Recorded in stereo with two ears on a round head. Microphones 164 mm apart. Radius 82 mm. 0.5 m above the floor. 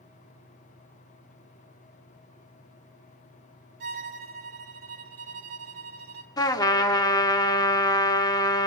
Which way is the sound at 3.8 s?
55° right (ahead or behind).